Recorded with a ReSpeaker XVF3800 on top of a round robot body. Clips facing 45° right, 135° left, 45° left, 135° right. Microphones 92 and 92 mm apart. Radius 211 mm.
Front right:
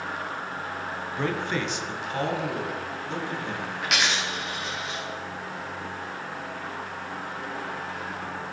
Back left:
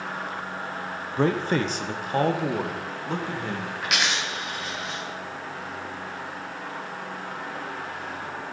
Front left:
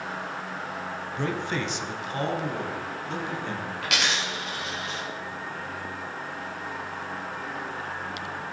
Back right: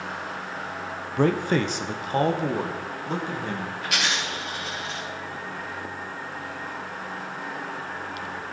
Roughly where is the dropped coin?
Ahead left.